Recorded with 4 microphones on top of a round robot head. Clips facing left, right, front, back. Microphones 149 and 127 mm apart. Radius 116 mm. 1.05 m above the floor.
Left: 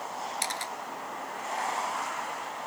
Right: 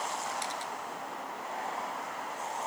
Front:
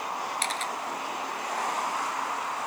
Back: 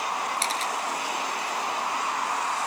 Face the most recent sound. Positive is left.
turn(degrees=130)